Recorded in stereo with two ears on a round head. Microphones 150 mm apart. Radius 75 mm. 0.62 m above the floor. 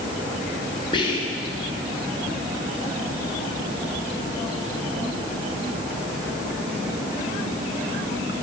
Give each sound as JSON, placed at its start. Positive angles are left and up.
{"t": 0.9, "sound": "whispering", "side_deg": 25, "distance_m": 0.6}